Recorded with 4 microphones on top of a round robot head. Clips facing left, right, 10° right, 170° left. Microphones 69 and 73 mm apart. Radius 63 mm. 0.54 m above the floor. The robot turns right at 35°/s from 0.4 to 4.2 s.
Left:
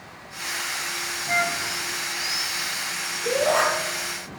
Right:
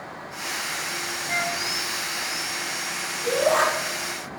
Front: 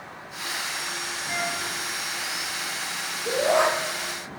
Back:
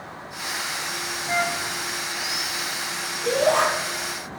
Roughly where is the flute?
Behind left.